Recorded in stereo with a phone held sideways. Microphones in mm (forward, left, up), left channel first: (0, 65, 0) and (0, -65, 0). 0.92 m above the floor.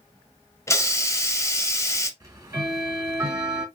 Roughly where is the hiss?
Left.